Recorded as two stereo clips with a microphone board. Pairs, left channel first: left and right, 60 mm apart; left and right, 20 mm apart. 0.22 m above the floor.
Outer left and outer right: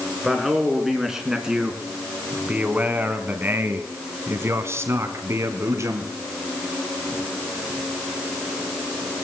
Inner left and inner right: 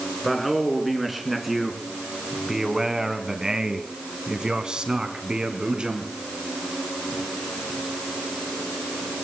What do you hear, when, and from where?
0.2 s a man speaking: centre (ahead or behind), 3 m; by 6.1 s 55° right (ahead or behind), 2.5 m